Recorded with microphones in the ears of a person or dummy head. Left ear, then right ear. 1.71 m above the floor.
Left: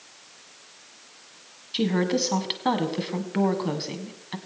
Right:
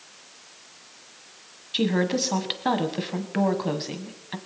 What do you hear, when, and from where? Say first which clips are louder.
1.7 s a woman speaking: right 1 dB; centre (ahead or behind), 1.5 m